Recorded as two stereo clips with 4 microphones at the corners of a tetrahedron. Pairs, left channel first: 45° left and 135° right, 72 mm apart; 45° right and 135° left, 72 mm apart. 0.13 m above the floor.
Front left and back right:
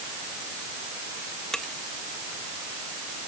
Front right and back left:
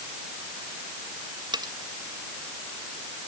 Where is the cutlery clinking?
130° left.